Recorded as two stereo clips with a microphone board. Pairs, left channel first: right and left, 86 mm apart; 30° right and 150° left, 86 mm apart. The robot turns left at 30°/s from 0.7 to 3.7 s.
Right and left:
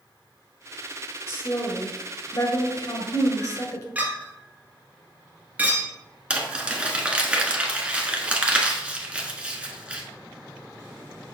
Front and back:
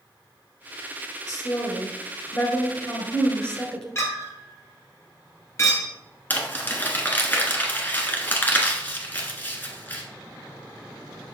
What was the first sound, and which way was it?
A woman speaking, 40° right.